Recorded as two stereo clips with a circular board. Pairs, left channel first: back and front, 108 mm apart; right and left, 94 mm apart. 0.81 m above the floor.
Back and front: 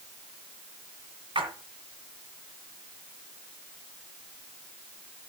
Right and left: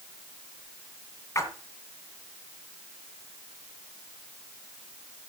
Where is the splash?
35° right, 2 m.